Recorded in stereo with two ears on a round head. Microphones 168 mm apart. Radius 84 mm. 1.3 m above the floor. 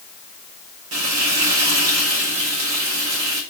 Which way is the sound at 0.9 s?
85° right.